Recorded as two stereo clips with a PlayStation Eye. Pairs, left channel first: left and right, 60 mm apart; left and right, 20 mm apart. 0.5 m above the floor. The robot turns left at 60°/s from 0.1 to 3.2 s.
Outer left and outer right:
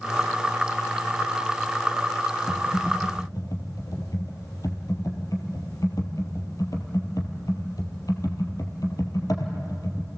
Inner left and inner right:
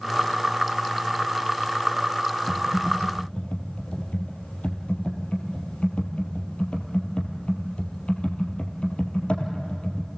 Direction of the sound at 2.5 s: 35° left (ahead or behind).